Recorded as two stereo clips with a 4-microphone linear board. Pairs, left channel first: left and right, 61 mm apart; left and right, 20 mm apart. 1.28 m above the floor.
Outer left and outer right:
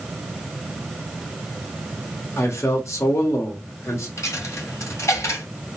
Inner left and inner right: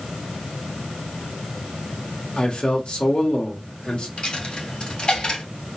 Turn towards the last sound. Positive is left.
turn(degrees=55)  # may be behind; listen again after turning